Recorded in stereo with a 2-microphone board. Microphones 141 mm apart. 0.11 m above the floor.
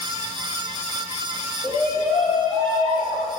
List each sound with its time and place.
1.6 s a shout: 25° left (ahead or behind), 4 m; by 3.3 s 60° left (ahead or behind), 4.5 m